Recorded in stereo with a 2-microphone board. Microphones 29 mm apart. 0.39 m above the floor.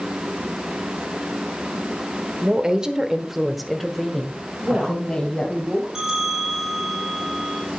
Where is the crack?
No crack in this recording.